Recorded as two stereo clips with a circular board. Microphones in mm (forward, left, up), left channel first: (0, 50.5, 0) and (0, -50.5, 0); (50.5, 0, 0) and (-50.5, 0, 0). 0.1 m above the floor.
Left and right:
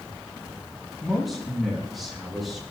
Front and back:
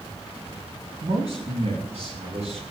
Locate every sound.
1.0 s a man speaking: straight behind, 9.5 m